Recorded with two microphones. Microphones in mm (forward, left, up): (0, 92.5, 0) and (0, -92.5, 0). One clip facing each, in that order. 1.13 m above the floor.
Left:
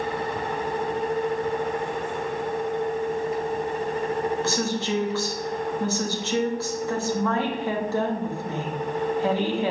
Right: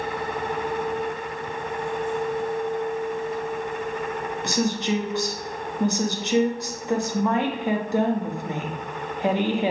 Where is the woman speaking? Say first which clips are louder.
Right 1 dB; 15° right (ahead or behind), 1.3 m.